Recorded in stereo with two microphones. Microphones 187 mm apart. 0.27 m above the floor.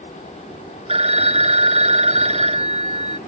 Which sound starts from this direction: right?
A phone ringing, at 0.9 s.